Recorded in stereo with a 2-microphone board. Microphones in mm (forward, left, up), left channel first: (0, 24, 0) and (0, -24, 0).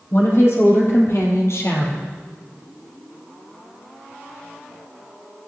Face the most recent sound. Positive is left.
turn(degrees=70)  # may be behind; listen again after turning